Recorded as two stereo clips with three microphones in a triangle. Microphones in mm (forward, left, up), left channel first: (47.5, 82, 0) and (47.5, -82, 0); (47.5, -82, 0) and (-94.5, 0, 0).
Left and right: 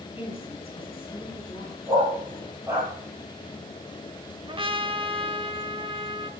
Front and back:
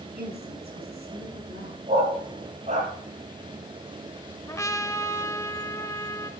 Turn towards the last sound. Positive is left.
turn(degrees=-85)